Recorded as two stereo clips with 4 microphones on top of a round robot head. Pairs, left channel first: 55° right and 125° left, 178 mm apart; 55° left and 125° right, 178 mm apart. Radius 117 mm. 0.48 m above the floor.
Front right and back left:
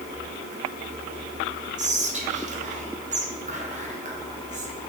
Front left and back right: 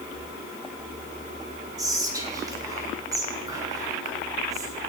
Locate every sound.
1.8 s whispering: 165° left, 1.7 m